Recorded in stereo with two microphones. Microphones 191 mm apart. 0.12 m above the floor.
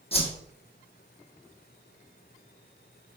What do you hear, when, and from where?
0.1 s a whoosh: 30° left (ahead or behind), 1.0 m